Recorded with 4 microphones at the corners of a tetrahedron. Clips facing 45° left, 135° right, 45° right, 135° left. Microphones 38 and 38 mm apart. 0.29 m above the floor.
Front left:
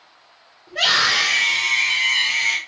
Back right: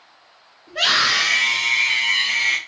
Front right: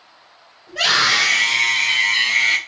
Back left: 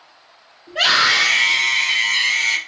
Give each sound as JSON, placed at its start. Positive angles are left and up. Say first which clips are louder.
{"t": 0.7, "sound": "a scream", "louder": "even, back left 1 dB", "azimuth_deg": 135, "distance_m": 1.3}